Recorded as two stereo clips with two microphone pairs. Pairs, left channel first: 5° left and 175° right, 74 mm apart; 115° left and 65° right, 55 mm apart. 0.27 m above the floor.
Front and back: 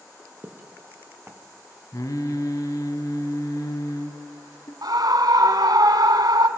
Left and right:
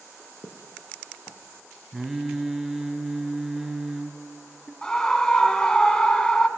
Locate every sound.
0.4 s footsteps: 120° left, 2.5 m
1.9 s singing: 20° left, 1.7 m
4.8 s a scream: 170° right, 2 m